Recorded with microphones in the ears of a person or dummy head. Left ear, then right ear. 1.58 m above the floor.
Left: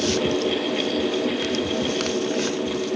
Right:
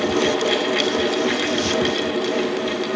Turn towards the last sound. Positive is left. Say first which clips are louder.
# right 3 dB
turn(degrees=-55)  # may be behind; listen again after turning